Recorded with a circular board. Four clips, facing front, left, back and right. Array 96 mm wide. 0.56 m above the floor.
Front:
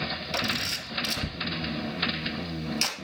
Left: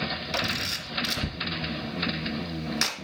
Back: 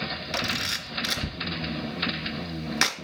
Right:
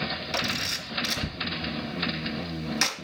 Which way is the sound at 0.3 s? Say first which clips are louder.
Even, back 1 dB; straight behind.